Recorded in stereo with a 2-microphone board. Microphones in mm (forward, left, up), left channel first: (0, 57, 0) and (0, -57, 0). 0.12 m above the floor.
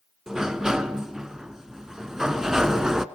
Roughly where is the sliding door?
Centre.